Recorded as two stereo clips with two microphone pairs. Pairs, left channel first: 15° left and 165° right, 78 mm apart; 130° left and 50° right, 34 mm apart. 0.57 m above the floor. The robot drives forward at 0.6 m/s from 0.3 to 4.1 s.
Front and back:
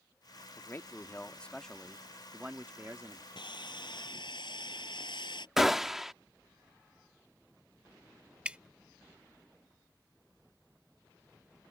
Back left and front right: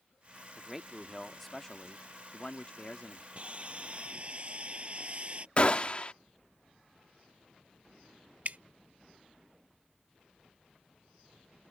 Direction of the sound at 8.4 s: 90° right.